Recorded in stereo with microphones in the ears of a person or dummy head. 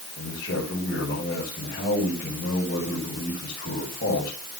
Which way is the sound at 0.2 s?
60° left (ahead or behind).